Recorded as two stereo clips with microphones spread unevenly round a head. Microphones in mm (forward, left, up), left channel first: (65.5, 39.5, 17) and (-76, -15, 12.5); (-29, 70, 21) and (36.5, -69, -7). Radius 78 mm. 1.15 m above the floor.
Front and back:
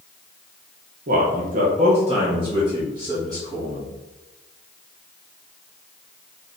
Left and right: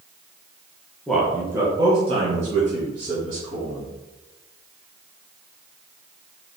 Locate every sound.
1.1 s a man speaking: 155° right, 0.8 m; by 3.9 s 85° right, 1.8 m